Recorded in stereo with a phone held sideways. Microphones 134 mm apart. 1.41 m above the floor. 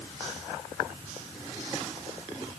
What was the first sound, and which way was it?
Only background noise.